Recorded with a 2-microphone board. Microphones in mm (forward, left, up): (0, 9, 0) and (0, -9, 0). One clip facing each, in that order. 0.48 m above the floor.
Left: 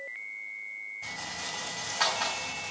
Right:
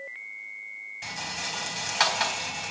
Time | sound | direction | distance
1.0 | a rattle | 70° right (ahead or behind) | 3.5 m